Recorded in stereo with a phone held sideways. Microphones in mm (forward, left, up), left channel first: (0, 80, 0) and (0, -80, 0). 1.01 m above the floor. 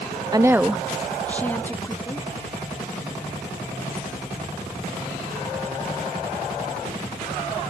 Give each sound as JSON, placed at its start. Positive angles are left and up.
{"t": 0.3, "sound": "a woman speaking", "side_deg": -25}